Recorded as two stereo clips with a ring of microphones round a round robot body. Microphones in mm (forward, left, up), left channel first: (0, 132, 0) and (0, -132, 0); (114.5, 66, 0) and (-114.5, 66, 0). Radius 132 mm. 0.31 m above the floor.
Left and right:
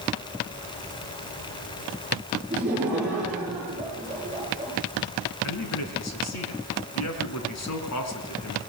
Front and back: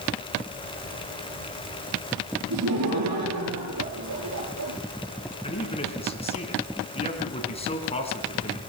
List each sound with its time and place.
2.5 s laughter: 175° right, 7.5 m
5.4 s a man speaking: 65° left, 3.5 m